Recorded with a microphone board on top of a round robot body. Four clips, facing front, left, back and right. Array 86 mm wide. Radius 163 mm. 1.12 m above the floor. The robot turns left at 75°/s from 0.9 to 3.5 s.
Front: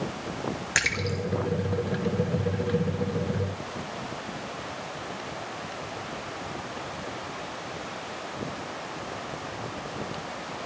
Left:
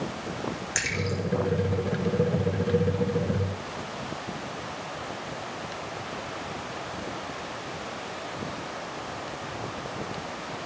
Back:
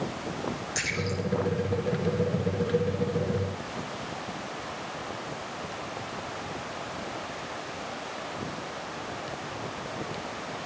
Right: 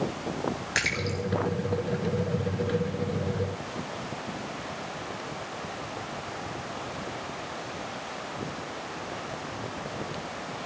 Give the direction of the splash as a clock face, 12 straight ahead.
1 o'clock.